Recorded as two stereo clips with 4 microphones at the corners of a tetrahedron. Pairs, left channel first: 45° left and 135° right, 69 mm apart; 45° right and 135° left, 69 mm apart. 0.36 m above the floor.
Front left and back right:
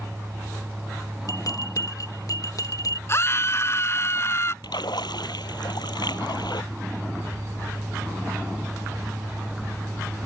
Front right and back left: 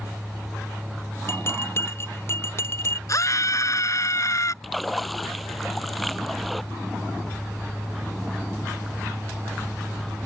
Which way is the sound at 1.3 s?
10° left.